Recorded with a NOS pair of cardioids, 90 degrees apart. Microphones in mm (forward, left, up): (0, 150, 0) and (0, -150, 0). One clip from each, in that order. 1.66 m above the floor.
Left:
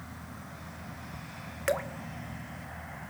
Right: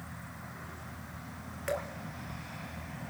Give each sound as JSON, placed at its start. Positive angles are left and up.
{"t": 1.7, "sound": "dripping", "azimuth_deg": 45, "distance_m": 2.5}